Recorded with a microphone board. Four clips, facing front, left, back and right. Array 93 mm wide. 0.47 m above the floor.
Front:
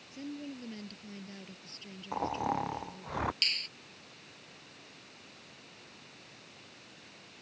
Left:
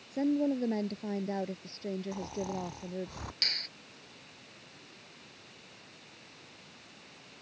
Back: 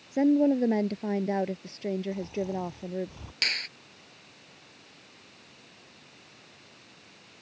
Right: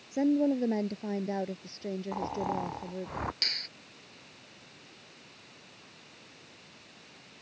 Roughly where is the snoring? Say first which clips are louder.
Right 4 dB, even; ahead right.